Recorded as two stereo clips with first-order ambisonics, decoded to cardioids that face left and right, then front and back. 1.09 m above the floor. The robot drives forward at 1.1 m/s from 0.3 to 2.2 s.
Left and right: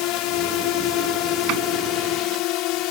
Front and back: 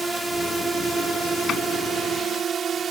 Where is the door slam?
55° right; by 1.6 s 60° right.